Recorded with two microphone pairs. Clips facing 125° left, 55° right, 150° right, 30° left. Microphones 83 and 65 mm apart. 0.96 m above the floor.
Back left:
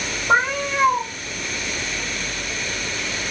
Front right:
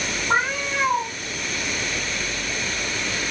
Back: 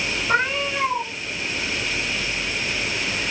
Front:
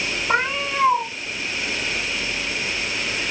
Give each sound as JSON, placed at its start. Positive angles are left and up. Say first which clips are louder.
{"t": 0.3, "sound": "a cat meowing", "louder": "back left 4 dB, even", "azimuth_deg": 110, "distance_m": 2.5}